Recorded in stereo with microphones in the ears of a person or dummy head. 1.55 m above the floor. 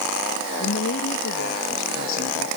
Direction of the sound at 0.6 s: 80° left.